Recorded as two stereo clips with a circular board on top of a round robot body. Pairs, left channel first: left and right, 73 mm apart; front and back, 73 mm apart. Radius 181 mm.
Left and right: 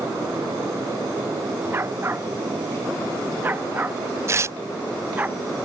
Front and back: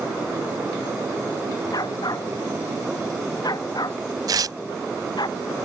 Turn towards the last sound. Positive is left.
turn(degrees=-145)